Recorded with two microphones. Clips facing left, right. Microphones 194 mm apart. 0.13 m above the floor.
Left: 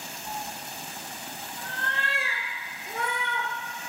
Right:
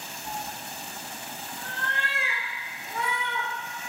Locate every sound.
0.2 s a cat meowing: 10° right (ahead or behind), 1.6 m; by 3.5 s 65° left (ahead or behind), 1.1 m